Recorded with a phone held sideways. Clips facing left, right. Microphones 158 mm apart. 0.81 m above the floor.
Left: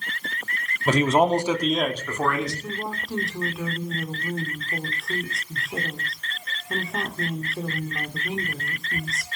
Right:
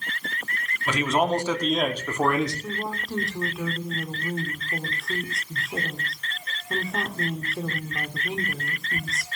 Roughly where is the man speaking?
Left.